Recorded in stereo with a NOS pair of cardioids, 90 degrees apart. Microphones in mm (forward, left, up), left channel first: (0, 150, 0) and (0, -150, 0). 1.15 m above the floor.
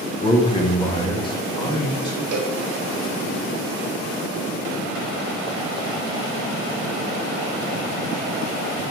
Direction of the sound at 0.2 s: 20° left.